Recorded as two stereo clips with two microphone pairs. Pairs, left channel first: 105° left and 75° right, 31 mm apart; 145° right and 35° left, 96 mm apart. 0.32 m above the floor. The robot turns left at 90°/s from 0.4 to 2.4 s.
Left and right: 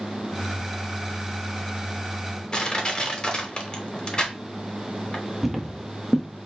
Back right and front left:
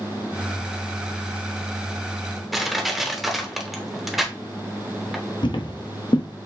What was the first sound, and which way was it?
Crushing, 130° left.